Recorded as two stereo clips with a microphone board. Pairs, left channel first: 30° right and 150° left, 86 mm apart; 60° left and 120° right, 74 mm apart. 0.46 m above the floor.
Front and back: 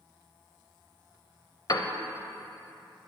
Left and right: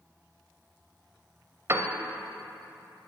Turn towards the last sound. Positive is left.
turn(degrees=-70)